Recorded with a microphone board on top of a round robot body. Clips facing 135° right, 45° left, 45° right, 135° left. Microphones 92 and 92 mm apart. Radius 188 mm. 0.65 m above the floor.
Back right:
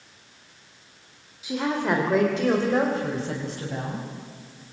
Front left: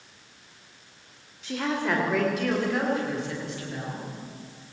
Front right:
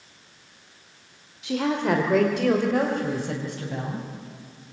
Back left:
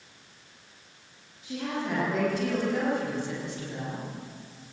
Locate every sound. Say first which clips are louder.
1.4 s a woman speaking: back right 2 dB, front right 8 dB; 55° right, 2.5 m; by 4.1 s 85° right, 5.5 m